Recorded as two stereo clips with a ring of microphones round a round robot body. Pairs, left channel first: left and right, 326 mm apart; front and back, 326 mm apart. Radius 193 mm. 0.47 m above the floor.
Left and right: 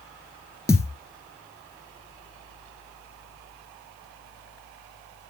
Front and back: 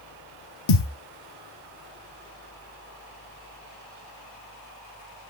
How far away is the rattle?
No rattle in this recording.